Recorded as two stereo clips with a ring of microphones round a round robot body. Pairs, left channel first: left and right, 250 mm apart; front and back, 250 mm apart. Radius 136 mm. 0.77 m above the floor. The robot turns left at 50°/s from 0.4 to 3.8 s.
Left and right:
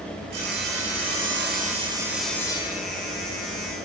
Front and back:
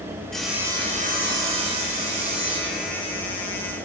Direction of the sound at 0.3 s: 90° right.